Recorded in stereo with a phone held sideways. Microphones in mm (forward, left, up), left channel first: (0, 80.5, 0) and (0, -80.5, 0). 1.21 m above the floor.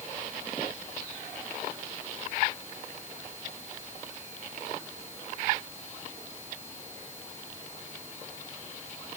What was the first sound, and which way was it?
Only background noise.